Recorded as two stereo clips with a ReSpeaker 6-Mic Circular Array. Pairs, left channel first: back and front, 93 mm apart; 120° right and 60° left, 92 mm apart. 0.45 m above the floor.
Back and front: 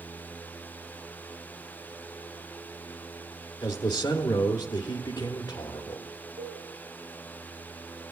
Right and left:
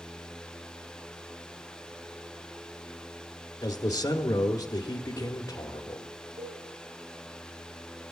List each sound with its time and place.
3.6 s a man speaking: 150° right, 1.0 m
6.4 s a cowbell: 25° left, 6 m